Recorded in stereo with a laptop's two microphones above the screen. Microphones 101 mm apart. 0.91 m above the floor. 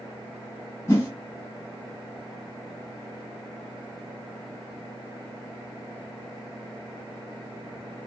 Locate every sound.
0.9 s a whoosh: 30° left (ahead or behind), 1.4 m